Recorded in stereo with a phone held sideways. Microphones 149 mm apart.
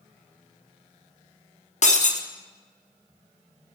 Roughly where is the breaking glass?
Left.